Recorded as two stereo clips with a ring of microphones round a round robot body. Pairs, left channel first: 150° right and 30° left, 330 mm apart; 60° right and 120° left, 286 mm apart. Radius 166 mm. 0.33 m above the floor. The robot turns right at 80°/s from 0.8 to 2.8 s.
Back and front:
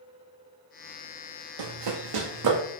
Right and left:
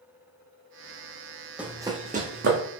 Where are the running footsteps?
35° left, 0.7 m; by 2.6 s 75° left, 1.1 m.